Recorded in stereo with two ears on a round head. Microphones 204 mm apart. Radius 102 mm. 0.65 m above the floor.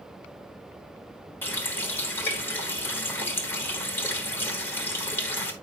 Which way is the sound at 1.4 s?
10° left (ahead or behind).